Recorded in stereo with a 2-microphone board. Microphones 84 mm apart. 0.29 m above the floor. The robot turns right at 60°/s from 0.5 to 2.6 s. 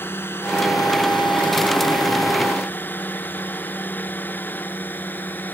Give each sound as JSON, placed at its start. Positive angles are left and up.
{"t": 0.0, "sound": "a drone", "side_deg": 25}